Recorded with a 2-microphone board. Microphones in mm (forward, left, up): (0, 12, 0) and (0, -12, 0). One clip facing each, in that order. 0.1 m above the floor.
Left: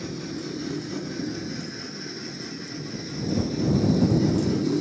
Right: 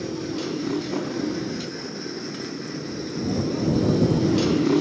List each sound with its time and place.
0.0 s a motorcycle: 80° right; by 4.8 s 70° right (ahead or behind)